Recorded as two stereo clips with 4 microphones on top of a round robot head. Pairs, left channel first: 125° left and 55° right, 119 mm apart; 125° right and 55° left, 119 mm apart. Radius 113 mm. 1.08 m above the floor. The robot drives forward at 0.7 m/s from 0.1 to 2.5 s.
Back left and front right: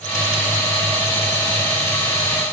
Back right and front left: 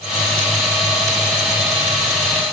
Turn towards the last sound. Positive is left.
No sound to turn to.